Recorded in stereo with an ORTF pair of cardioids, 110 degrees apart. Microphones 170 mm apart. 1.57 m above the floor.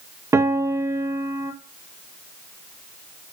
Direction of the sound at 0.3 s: 15° right.